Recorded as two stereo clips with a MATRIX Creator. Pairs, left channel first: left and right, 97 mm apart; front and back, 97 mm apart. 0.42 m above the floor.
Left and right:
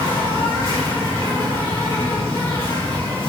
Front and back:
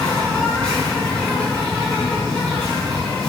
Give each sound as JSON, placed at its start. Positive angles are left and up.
{"t": 0.0, "sound": "an insect", "azimuth_deg": 70, "distance_m": 1.9}